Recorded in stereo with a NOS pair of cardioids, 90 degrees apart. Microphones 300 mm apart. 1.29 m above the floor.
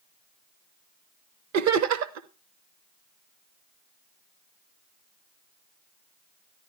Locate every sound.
1.5 s laughter: 60° right, 0.9 m